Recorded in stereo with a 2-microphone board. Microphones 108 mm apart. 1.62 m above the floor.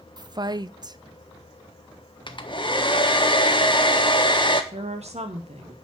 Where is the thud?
I don't hear a thud.